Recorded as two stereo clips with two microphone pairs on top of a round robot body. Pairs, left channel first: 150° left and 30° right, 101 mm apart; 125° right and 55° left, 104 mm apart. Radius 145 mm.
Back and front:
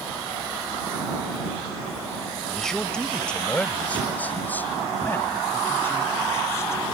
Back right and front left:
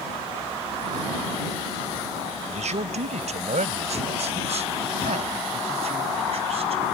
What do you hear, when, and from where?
2.5 s a man speaking: 60° left; by 6.8 s 85° left